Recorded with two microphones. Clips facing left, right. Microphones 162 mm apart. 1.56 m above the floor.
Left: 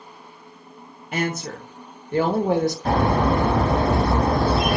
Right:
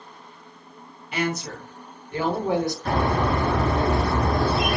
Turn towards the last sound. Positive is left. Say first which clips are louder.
# left 4 dB
turn(degrees=40)  # may be behind; listen again after turning